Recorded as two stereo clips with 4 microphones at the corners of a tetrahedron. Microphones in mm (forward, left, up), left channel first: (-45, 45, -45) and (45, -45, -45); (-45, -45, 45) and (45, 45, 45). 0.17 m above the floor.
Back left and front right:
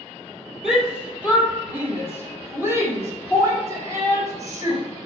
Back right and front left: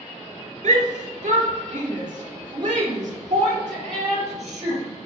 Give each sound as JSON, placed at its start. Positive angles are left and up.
{"t": 0.6, "sound": "a shout", "azimuth_deg": 40, "distance_m": 3.0}